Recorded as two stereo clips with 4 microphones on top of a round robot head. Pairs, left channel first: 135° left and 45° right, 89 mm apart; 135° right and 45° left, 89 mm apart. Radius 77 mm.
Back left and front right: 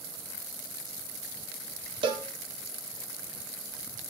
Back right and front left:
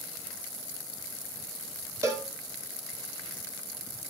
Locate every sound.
2.0 s a cowbell: 15° right, 2.5 m